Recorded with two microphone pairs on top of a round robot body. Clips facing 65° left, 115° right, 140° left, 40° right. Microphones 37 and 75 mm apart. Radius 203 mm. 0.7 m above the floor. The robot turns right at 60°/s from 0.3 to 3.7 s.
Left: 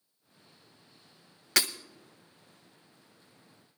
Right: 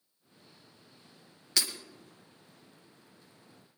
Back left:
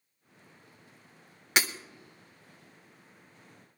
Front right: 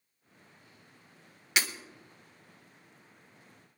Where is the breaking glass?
85° left, 1.4 m; by 1.7 s 95° left, 1.4 m.